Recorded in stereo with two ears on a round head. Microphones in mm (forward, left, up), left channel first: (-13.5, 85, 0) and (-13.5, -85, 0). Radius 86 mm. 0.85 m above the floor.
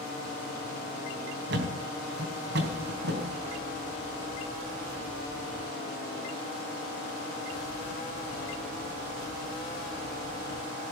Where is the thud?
60° right (ahead or behind), 3.5 m.